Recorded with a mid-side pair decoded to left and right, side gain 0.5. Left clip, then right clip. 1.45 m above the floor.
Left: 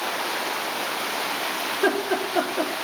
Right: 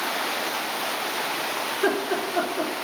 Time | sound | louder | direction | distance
1.7 | laughter | left 2 dB | 30° left | 3 m